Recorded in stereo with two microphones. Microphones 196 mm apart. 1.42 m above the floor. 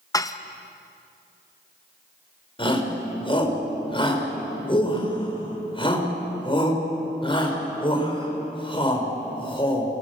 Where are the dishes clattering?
20° left (ahead or behind), 0.7 m.